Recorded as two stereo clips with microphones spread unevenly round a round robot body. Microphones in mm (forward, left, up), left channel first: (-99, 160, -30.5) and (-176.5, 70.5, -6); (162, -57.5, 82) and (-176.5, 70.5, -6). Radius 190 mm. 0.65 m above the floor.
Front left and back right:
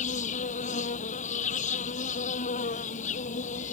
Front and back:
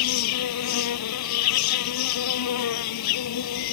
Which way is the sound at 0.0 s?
15° left.